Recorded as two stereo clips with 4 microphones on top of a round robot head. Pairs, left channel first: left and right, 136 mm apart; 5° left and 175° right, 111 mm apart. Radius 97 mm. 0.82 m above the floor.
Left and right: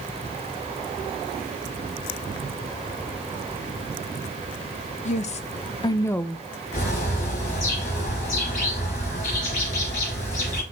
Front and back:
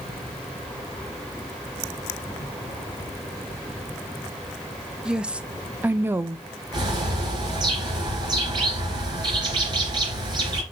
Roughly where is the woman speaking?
Left.